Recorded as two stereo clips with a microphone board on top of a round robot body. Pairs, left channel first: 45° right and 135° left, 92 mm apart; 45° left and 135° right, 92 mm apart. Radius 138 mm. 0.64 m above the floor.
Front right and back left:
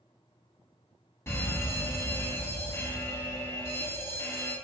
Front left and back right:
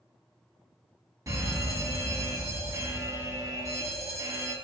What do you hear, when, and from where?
1.3 s a fire alarm: 95° right, 3 m